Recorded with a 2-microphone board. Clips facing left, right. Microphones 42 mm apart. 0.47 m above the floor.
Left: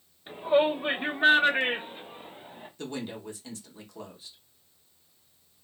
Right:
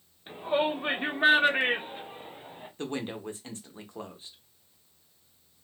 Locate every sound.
0.3 s a shout: 5° right (ahead or behind), 0.9 m; by 2.7 s 15° right (ahead or behind), 1.1 m
2.8 s a woman speaking: 30° right (ahead or behind), 0.8 m